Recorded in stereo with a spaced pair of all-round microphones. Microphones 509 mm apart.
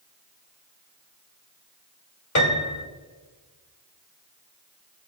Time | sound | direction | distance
2.4 | a piano | 35° left (ahead or behind) | 1.7 m